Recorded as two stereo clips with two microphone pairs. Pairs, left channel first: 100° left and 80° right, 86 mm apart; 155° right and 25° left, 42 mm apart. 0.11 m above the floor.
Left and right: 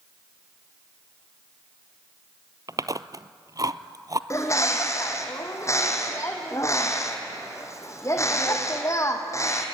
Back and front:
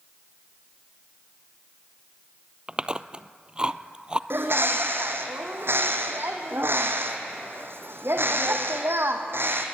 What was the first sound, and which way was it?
Chewing, 40° right.